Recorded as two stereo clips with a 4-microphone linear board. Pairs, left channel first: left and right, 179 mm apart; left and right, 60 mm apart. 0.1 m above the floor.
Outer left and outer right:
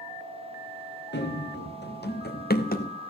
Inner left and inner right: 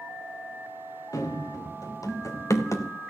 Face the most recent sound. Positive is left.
turn(degrees=55)  # may be behind; listen again after turning